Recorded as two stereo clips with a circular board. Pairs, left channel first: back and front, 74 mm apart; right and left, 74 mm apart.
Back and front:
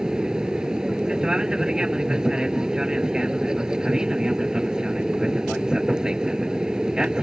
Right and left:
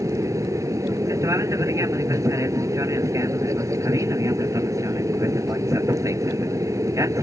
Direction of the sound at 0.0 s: 75° left.